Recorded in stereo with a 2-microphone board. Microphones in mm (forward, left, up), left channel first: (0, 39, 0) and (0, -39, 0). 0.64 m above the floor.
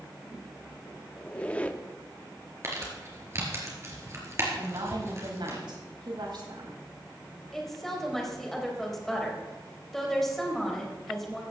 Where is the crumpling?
35° right (ahead or behind), 3.5 m.